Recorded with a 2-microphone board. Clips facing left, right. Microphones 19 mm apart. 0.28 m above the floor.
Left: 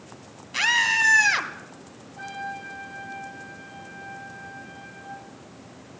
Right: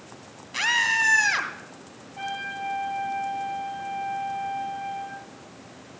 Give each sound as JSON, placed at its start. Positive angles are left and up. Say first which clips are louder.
{"t": 0.5, "sound": "a scream", "louder": "left 1 dB", "side_deg": 5, "distance_m": 1.8}
{"t": 2.2, "sound": "a trumpet", "louder": "right 3 dB", "side_deg": -55, "distance_m": 5.0}